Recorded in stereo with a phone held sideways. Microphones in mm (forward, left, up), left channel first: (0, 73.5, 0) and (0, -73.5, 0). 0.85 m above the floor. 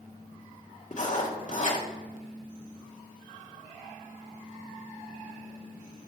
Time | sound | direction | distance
0.9 | writing | 55° left (ahead or behind) | 1.3 m